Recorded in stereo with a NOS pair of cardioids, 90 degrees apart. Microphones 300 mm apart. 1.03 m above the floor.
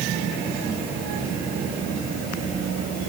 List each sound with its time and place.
Only background noise.